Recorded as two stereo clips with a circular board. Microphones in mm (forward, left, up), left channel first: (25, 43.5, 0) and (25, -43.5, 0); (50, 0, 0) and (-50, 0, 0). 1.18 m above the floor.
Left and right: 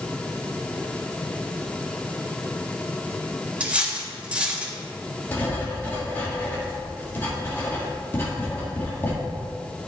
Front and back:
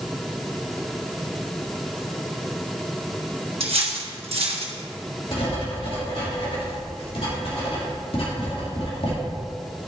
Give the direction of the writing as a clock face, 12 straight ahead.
11 o'clock.